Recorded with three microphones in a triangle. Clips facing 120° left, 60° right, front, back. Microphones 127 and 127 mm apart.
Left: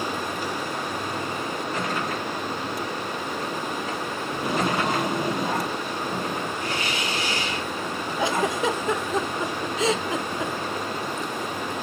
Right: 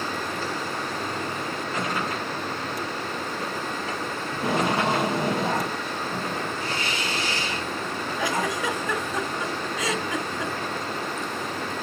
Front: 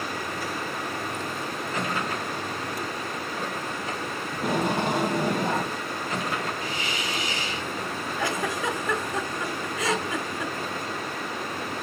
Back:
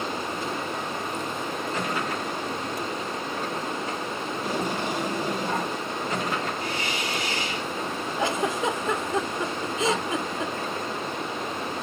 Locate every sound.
4.3 s tape being pulled: straight ahead, 2.5 m
6.6 s a hiss: 160° right, 3 m
8.2 s a giggle: 150° left, 1.1 m